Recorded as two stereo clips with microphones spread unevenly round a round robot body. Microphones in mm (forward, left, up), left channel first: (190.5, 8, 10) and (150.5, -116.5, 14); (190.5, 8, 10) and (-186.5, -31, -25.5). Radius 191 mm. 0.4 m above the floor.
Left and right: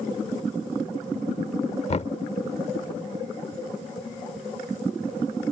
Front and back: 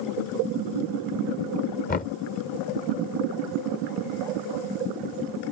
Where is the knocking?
75° left.